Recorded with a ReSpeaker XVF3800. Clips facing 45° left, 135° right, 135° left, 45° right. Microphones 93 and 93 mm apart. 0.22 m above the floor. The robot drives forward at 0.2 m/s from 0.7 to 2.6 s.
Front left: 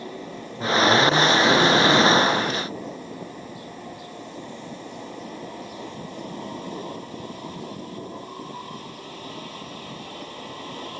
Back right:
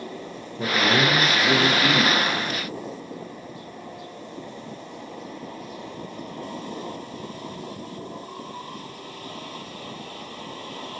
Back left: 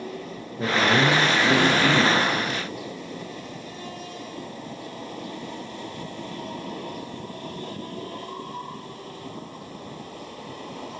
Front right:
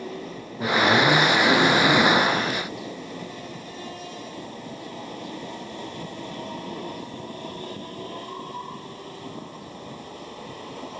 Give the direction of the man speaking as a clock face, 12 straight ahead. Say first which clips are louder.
Front left 3 dB, front right 1 dB; 6 o'clock.